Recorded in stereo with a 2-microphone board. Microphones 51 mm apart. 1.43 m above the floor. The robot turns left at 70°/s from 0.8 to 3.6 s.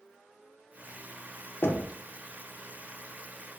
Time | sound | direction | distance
1.6 | knocking | 50° left (ahead or behind) | 0.5 m